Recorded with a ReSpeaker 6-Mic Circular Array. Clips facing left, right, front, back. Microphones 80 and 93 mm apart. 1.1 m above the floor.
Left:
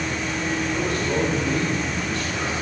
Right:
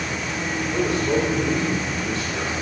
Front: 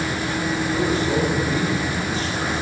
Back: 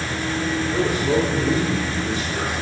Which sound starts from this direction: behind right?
A man speaking, at 0.7 s.